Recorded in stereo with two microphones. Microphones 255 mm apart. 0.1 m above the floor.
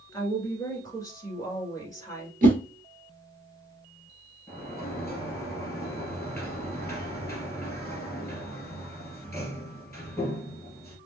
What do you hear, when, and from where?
0.1 s a woman speaking: 15° left (ahead or behind), 1.5 m
2.4 s a whoosh: 35° right (ahead or behind), 1.4 m
4.5 s a sliding door: 10° left (ahead or behind), 1.7 m